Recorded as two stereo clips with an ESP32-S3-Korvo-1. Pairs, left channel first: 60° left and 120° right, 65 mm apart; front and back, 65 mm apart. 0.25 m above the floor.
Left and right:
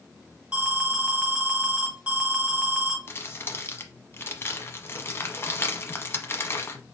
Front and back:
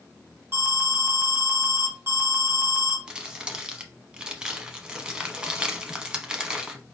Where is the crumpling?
105° left, 0.8 m.